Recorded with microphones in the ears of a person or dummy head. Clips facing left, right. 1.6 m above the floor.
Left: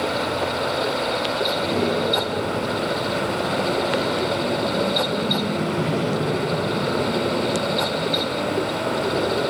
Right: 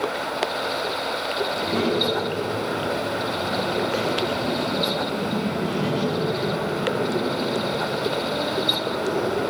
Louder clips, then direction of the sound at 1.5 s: Even; 75° left (ahead or behind).